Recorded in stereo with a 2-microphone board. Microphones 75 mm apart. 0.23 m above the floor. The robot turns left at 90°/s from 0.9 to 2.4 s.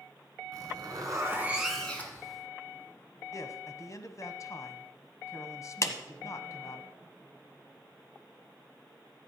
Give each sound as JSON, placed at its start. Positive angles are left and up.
{"t": 0.5, "sound": "a zipper", "azimuth_deg": -110, "distance_m": 2.5}
{"t": 3.3, "sound": "a man speaking", "side_deg": 45, "distance_m": 1.3}
{"t": 5.8, "sound": "a clap", "side_deg": 45, "distance_m": 1.3}